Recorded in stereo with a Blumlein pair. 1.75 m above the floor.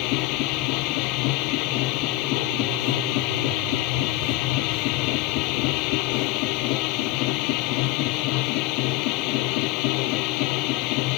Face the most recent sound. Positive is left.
turn(degrees=40)